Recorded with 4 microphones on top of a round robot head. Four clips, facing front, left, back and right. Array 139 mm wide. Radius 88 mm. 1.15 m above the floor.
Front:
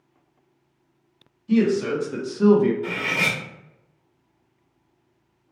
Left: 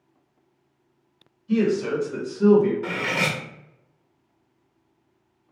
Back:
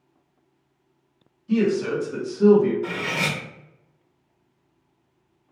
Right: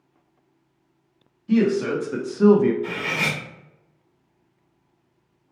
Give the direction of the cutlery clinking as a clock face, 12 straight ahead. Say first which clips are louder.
Left 1 dB, even; 9 o'clock.